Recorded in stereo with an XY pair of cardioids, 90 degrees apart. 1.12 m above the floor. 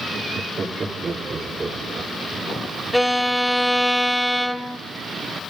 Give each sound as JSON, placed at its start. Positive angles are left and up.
{"t": 0.1, "sound": "laughter", "azimuth_deg": -55, "distance_m": 2.5}
{"t": 2.9, "sound": "a violin", "azimuth_deg": 0, "distance_m": 0.9}